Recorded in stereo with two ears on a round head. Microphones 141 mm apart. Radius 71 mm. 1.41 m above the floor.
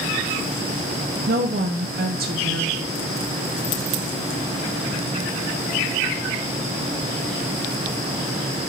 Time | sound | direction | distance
1.3 | a woman speaking | 65° right (ahead or behind) | 0.8 m